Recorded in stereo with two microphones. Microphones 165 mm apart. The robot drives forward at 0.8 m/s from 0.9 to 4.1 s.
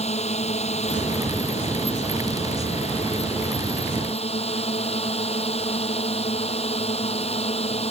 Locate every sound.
0.0 s a drone: 40° left (ahead or behind)